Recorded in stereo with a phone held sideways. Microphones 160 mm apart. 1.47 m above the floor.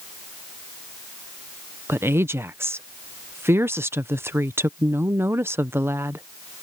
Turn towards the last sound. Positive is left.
turn(degrees=-15)  # may be behind; listen again after turning